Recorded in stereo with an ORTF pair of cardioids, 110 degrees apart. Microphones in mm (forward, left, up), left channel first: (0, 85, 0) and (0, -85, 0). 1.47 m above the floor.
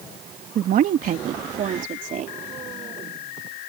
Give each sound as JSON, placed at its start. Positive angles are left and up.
{"t": 0.6, "sound": "a woman speaking", "azimuth_deg": -60}